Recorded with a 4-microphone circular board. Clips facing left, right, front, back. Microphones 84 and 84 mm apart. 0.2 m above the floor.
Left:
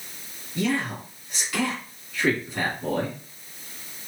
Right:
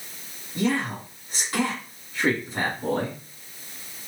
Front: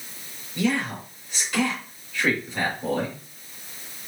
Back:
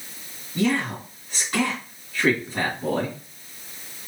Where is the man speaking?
140° right, 2.5 m.